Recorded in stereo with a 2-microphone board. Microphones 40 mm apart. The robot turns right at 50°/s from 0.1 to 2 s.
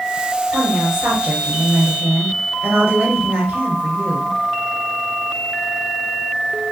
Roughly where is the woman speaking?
Behind right.